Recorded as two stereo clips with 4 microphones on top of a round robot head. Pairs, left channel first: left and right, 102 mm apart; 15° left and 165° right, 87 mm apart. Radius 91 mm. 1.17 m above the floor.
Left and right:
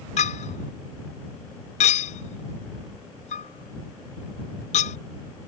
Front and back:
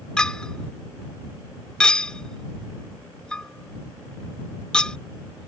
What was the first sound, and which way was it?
A clink, 95° left.